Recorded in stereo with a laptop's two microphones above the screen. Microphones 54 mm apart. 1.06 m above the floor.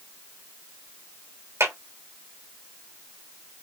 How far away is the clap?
About 3 m.